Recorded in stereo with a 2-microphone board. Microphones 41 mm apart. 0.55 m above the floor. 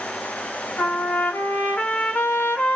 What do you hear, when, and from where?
0.8 s a trumpet: 50° left (ahead or behind), 0.6 m